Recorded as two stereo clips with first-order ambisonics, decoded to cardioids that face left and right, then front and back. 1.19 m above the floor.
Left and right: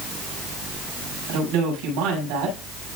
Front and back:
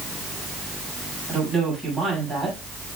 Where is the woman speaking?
105° right, 5.5 m.